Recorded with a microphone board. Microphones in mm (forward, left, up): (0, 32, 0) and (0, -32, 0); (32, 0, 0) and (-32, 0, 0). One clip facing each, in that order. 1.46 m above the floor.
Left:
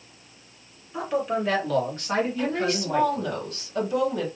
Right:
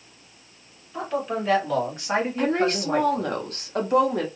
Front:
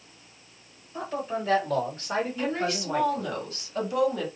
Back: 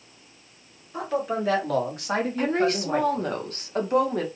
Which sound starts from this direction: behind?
A man speaking, at 0.9 s.